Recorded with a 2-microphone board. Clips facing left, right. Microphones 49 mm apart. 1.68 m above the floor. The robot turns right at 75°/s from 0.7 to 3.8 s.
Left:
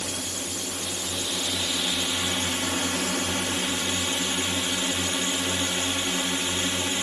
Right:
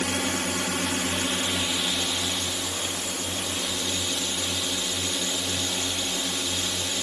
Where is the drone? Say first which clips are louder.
Right 6 dB; 90° right; by 7.0 s 145° left.